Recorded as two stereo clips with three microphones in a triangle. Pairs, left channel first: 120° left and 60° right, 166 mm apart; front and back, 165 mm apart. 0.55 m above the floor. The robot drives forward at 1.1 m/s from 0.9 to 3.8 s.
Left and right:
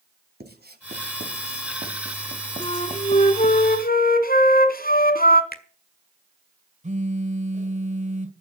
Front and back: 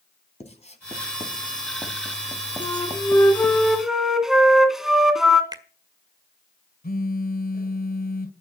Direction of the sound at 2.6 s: 60° left.